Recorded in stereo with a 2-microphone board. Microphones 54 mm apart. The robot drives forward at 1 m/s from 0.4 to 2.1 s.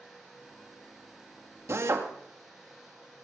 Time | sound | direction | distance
1.7 | a drill | 60° right (ahead or behind) | 2 m